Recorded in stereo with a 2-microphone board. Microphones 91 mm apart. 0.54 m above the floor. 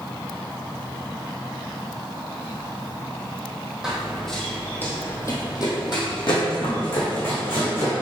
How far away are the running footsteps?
About 1.4 m.